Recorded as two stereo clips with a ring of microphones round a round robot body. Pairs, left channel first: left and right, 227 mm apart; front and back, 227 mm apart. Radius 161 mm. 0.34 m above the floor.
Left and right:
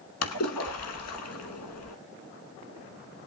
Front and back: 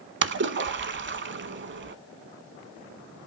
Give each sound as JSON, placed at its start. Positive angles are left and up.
{"t": 0.2, "sound": "a splash", "azimuth_deg": 135, "distance_m": 0.8}